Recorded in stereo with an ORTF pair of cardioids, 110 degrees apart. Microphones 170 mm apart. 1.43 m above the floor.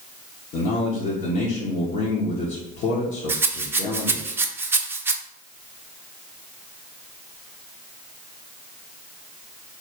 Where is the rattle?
15° right, 0.5 m.